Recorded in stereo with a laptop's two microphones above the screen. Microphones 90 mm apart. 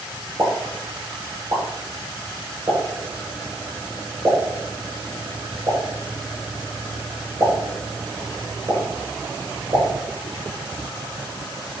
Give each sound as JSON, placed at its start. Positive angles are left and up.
{"t": 0.4, "sound": "a pop", "side_deg": -35, "distance_m": 6.0}